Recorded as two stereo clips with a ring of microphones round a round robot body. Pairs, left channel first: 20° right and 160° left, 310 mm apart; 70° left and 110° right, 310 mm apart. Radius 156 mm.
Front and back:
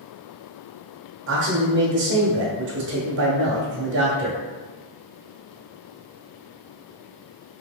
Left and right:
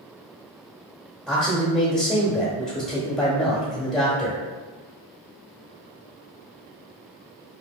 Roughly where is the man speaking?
Behind.